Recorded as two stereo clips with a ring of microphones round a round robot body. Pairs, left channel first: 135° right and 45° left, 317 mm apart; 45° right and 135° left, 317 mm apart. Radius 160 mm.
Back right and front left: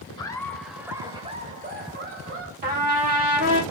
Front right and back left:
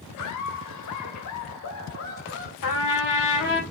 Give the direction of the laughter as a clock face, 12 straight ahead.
2 o'clock.